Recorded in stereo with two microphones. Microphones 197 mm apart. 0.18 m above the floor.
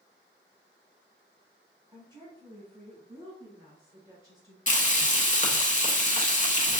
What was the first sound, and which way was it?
A woman speaking, 15° right (ahead or behind).